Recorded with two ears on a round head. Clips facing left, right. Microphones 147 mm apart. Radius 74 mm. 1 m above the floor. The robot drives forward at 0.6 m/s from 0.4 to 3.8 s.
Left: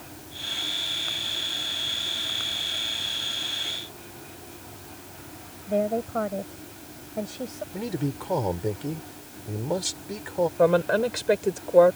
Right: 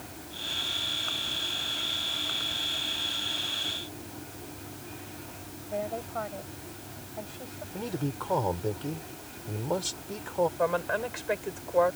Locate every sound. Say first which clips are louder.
5.7 s a woman speaking: left 9 dB; 55° left (ahead or behind)
7.7 s a man speaking: left 3 dB; 15° left (ahead or behind)
10.6 s a woman speaking: left 8 dB; 50° left (ahead or behind)